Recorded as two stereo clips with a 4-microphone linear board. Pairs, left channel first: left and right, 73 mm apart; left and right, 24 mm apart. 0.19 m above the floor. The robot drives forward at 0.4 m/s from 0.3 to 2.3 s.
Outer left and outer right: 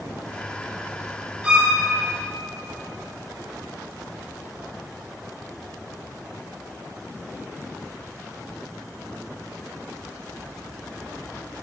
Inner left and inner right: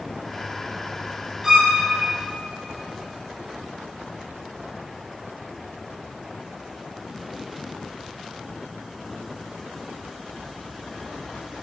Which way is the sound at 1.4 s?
15° right (ahead or behind).